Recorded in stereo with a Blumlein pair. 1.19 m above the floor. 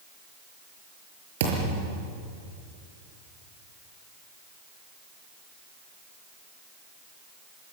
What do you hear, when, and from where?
1.4 s a thud: 55° right, 6 m